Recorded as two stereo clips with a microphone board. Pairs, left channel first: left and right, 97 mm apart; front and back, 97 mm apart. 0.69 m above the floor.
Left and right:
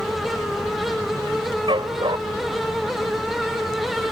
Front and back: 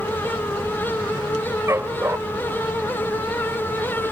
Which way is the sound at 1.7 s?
120° right.